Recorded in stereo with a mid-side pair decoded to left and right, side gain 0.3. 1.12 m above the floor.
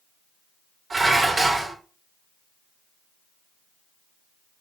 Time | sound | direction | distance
0.9 | dishes clattering | 55° right | 3 m